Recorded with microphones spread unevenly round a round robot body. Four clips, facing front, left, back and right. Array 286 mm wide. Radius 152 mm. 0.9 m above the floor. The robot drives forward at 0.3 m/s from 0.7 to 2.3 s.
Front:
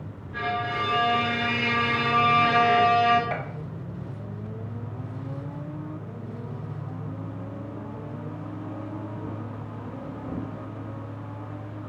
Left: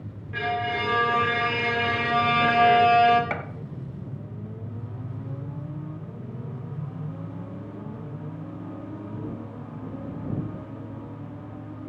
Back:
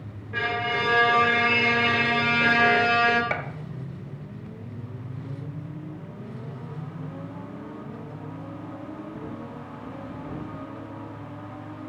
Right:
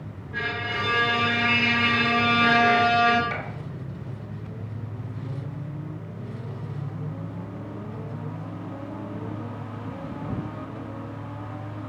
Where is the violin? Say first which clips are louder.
Left 3 dB, back 1 dB; 175° left, 1.5 m.